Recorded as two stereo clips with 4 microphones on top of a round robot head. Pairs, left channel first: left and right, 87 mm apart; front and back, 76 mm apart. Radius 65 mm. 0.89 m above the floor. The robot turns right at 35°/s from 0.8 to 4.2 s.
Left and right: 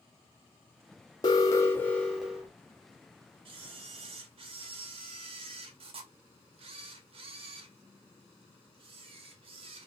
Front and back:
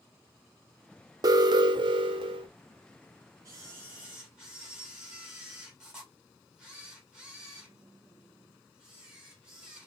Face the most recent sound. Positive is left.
turn(degrees=-95)